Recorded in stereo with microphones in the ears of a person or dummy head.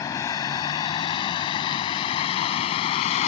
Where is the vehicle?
15° left (ahead or behind); by 3.3 s 30° left (ahead or behind).